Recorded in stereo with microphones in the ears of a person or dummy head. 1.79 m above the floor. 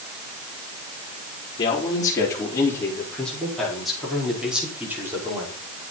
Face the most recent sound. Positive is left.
turn(degrees=-15)  # may be behind; listen again after turning